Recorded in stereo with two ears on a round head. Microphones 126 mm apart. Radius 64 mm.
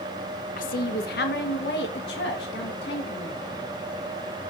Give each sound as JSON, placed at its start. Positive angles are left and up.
{"t": 0.6, "sound": "a woman speaking", "side_deg": 60, "distance_m": 0.7}